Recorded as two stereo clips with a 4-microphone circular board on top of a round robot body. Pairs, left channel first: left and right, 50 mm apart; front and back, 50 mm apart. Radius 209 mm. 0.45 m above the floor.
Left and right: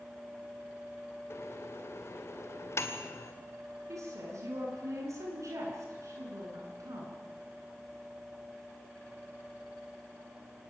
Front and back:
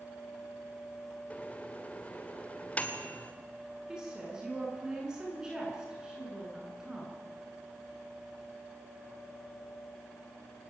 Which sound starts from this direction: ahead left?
A microwave, at 1.3 s.